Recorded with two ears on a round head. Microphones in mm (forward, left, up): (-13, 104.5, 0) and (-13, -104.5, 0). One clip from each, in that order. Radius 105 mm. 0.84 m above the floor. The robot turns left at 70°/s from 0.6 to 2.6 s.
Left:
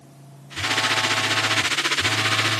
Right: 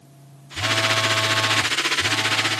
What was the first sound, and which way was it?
A phone buzzing, 75° right.